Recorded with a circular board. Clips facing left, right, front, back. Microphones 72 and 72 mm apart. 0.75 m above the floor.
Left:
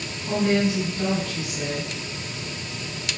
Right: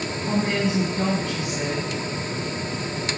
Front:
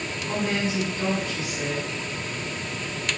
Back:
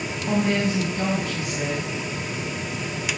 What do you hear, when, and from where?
0.3 s a woman speaking: 155° right, 6 m